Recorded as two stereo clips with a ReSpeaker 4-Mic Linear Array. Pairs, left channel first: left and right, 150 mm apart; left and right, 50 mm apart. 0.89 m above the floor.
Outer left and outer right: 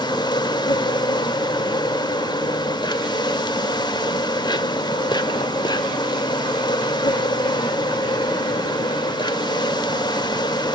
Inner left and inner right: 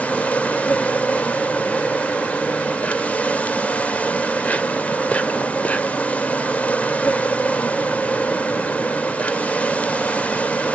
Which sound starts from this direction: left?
An insect, at 0.0 s.